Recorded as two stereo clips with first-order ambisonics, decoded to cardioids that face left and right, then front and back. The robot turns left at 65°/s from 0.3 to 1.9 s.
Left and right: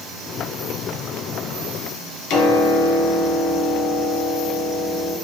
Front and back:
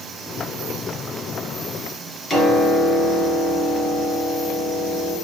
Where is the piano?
80° left, 1.3 m.